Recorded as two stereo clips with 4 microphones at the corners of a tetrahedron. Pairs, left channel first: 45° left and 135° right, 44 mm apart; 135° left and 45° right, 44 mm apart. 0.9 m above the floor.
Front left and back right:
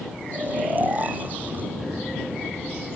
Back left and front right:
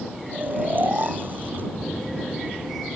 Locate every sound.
0.3 s snoring: 85° right